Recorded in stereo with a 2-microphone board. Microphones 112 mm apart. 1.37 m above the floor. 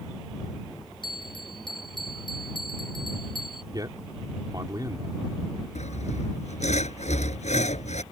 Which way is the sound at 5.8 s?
85° left.